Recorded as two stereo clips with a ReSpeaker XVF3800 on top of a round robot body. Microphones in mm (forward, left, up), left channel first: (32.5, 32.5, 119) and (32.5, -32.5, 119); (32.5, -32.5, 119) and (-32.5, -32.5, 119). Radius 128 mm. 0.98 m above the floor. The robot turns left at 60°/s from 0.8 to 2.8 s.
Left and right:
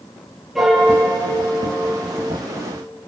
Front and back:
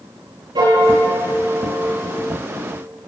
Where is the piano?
175° right, 7.5 m; by 2.3 s 95° left, 7.5 m.